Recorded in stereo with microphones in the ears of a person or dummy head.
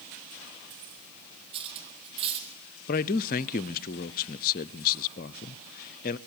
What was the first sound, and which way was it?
Cutlery clinking, 30° right (ahead or behind).